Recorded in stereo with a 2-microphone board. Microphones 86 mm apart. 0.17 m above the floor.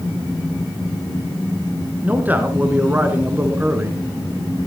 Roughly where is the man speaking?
Centre.